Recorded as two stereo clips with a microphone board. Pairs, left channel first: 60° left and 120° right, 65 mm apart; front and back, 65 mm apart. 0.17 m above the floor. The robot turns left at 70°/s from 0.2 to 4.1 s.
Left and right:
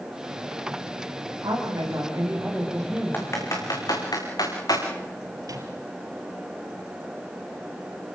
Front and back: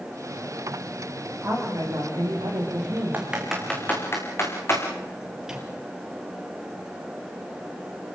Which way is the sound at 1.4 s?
125° right.